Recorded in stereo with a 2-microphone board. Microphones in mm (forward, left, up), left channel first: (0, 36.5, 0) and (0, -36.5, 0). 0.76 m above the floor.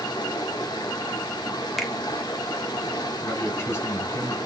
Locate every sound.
0.0 s running water: 70° left (ahead or behind), 1.1 m
1.8 s a finger snap: centre (ahead or behind), 0.8 m
3.2 s a man speaking: 35° left (ahead or behind), 2.5 m